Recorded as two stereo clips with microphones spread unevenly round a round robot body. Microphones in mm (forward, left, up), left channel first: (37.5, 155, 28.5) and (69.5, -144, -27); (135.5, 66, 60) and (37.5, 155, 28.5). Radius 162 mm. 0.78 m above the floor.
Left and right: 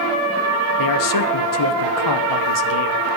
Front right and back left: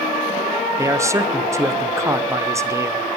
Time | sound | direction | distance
0.8 | a man speaking | 75° left | 0.8 m